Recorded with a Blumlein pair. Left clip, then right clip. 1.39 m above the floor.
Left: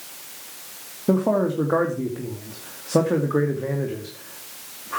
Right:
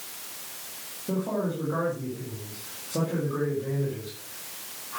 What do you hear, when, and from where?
1.1 s a man speaking: 55° left, 2.5 m